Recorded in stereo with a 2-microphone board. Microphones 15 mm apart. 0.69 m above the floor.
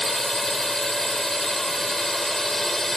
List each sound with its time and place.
0.0 s a drone: 20° left (ahead or behind)